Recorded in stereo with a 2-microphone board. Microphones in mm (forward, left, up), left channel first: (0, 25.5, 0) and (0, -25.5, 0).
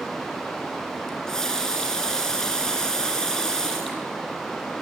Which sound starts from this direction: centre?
A running tap, at 1.1 s.